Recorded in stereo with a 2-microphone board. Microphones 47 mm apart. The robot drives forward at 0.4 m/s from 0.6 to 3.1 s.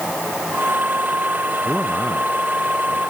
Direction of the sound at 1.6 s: 15° left (ahead or behind).